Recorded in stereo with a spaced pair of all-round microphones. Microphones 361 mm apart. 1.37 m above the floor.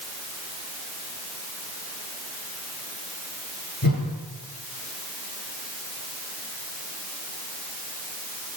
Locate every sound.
3.8 s a whoosh: 70° left (ahead or behind), 8 m